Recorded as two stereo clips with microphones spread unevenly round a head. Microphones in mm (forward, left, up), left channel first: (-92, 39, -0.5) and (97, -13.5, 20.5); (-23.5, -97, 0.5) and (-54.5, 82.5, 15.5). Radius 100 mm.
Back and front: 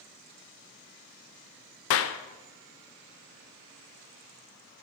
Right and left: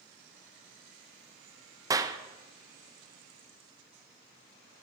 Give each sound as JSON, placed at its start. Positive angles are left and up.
{"t": 1.9, "sound": "a clap", "azimuth_deg": 175, "distance_m": 0.6}